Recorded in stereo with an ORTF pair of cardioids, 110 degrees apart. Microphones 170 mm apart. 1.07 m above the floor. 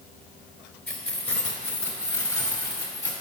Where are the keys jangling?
10° left, 3 m; by 3.1 s 20° left, 4.5 m.